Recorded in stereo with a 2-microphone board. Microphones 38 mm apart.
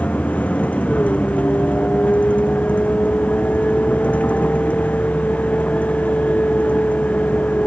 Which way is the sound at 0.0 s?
40° left (ahead or behind).